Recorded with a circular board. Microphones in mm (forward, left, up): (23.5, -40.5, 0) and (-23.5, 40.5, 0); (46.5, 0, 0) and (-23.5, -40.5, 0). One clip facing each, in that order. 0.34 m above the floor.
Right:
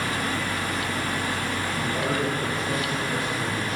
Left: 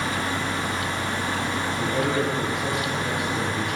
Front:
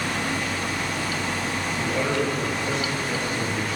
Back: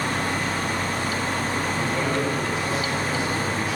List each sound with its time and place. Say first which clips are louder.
1.8 s a man speaking: left 3 dB, front 3 dB; 125° left, 6 m